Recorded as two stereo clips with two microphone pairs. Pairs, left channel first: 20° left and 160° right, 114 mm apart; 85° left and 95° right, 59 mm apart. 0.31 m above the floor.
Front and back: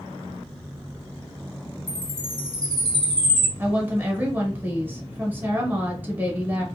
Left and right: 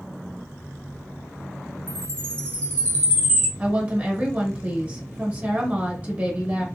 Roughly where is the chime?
Ahead left.